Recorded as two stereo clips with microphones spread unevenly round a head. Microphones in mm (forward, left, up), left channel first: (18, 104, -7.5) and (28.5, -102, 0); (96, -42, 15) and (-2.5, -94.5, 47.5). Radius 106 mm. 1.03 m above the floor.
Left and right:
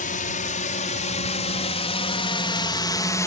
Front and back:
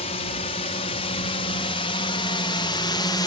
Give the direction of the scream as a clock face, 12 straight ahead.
No scream in this recording.